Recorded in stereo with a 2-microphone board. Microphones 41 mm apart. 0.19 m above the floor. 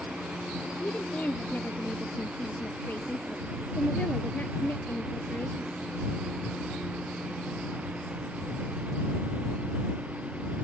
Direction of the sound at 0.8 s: 45° left (ahead or behind).